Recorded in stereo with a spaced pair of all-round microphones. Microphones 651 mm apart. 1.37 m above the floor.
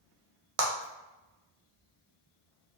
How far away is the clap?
About 0.8 m.